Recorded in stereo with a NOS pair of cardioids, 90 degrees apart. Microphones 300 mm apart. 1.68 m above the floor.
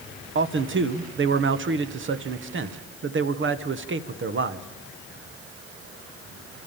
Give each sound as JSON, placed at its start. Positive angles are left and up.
{"t": 0.3, "sound": "a man speaking", "azimuth_deg": -40, "distance_m": 1.4}